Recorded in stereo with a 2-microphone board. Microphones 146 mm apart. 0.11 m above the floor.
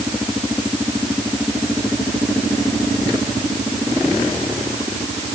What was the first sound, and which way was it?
Only background noise.